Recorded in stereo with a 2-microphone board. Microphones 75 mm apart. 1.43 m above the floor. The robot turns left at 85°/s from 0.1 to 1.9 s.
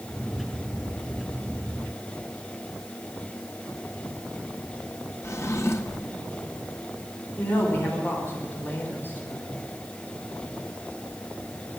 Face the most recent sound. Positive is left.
turn(degrees=30)  # may be behind; listen again after turning